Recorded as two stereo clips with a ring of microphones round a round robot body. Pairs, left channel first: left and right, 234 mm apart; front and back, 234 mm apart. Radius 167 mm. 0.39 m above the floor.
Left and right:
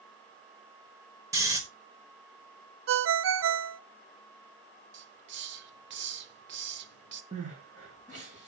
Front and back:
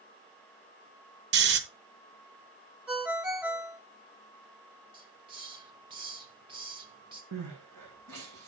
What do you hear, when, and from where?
1.3 s snoring: 165° right, 1.0 m
2.9 s a ringtone: 95° right, 0.6 m
4.9 s a hiss: 110° right, 0.9 m
7.3 s crying: 160° right, 5 m